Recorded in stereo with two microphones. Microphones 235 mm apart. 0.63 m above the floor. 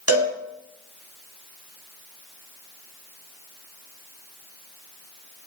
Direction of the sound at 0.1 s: 70° right (ahead or behind).